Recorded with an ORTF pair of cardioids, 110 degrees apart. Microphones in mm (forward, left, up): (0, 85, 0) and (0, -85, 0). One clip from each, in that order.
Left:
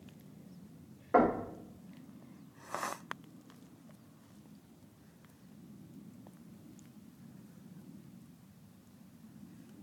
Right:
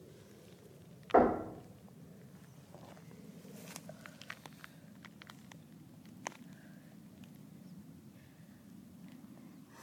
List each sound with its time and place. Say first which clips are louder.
1.1 s knocking: even; 5° left, 0.8 m